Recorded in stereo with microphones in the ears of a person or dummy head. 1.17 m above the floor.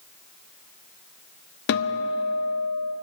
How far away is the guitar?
About 0.9 m.